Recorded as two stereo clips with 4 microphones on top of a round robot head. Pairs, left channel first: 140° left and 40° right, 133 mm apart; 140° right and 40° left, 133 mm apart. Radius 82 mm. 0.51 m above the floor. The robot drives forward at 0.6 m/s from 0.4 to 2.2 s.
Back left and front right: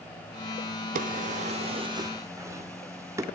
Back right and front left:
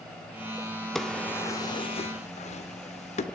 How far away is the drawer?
About 0.9 m.